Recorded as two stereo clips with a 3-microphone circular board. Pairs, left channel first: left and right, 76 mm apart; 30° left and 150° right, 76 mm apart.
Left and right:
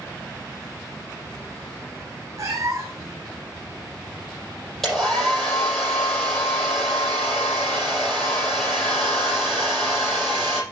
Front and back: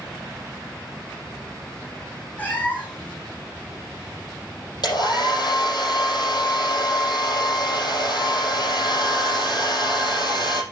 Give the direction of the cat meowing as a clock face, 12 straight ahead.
1 o'clock.